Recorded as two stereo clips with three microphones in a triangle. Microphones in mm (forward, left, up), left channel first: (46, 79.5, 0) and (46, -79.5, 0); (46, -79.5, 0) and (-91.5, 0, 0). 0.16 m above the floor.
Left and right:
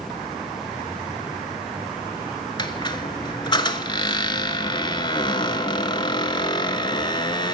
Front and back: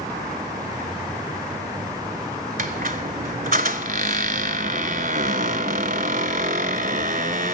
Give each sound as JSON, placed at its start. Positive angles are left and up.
{"t": 2.6, "sound": "a squeak", "azimuth_deg": 145, "distance_m": 0.8}